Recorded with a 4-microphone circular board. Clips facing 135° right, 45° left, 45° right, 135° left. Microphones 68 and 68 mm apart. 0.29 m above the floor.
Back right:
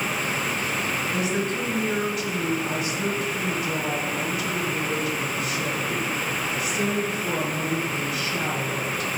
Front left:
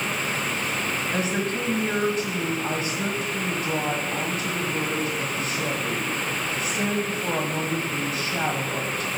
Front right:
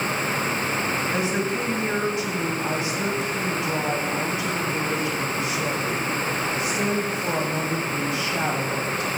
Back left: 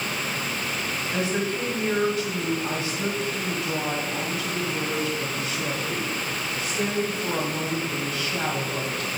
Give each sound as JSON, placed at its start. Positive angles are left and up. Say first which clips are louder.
{"t": 1.1, "sound": "a woman speaking", "louder": "even, front right 2 dB", "azimuth_deg": 15, "distance_m": 1.3}